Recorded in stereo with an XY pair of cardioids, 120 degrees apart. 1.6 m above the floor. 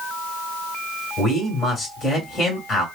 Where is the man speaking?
30° left, 3 m.